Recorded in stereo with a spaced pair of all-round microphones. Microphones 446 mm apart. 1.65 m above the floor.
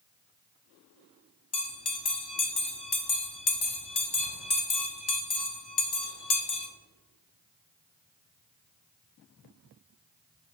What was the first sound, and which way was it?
A bell, 60° left (ahead or behind).